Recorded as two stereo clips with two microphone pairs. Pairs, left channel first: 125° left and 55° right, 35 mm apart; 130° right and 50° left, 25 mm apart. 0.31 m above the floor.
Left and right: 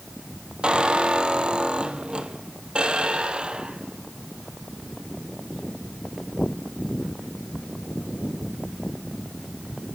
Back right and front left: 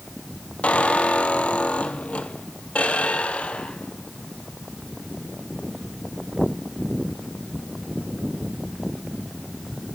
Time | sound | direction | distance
0.6 | a squeak | 110° right | 1.5 m